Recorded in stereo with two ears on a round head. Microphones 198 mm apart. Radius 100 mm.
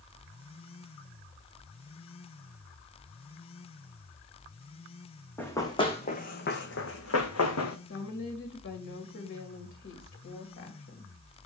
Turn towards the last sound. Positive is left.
turn(degrees=60)  # may be behind; listen again after turning